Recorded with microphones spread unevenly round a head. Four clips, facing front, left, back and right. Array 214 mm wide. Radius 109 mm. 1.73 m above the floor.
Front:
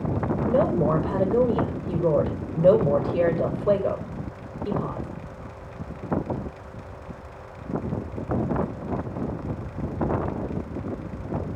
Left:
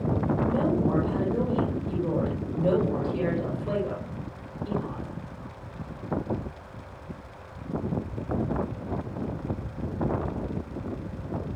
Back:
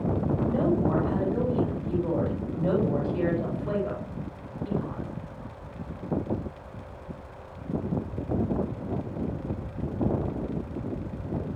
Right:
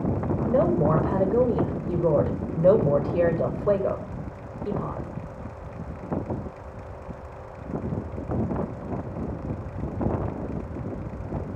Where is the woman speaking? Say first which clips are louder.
Right 7 dB, front 5 dB; 45° right, 9 m.